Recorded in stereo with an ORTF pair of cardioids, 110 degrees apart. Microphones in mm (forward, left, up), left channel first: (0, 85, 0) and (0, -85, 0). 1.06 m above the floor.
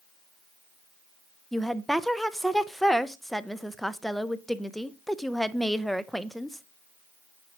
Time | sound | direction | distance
1.5 | a woman speaking | straight ahead | 0.5 m